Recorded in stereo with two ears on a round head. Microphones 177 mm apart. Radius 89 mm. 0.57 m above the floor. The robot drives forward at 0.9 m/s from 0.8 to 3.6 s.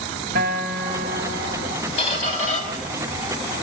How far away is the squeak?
About 3 m.